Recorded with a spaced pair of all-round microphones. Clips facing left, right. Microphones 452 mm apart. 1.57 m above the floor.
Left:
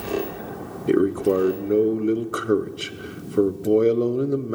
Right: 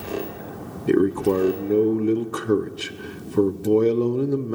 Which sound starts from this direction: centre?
A man speaking, at 0.9 s.